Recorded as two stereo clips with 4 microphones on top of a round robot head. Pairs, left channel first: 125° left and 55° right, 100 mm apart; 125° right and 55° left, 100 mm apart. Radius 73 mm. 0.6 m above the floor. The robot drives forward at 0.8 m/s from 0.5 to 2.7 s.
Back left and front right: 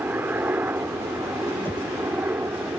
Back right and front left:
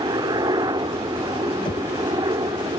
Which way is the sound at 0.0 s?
15° left.